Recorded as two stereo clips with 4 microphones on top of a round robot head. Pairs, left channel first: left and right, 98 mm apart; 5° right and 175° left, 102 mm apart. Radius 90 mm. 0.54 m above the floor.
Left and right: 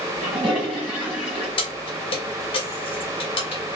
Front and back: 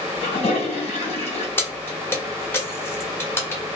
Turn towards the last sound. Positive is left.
turn(degrees=65)